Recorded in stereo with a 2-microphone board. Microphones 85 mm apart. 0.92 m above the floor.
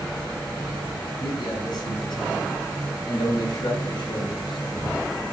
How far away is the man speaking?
About 9 m.